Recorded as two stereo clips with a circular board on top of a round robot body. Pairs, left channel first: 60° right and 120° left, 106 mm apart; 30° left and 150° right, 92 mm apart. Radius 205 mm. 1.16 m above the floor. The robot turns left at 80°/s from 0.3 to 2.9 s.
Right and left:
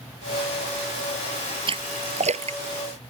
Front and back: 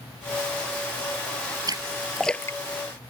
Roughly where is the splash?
Behind.